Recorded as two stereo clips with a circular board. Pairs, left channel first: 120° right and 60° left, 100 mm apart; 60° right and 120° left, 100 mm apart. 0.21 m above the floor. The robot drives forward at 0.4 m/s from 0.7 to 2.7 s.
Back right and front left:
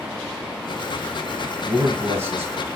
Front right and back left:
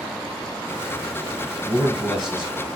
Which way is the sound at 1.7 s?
35° left.